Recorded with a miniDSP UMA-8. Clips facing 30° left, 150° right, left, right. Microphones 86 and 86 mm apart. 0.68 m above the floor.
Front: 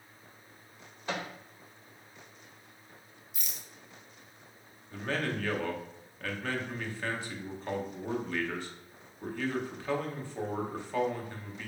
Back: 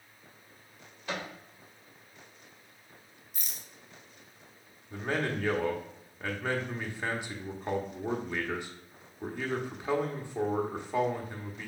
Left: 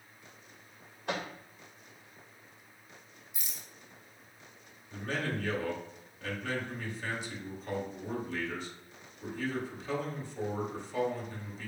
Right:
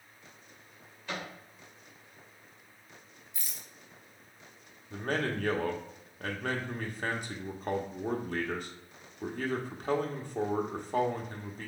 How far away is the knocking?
No knocking in this recording.